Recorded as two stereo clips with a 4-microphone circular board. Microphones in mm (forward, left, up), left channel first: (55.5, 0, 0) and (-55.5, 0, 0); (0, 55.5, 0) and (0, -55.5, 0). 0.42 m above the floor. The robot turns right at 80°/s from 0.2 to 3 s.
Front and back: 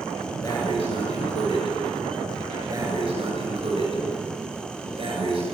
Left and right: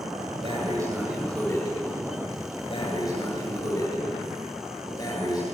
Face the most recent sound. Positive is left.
turn(degrees=140)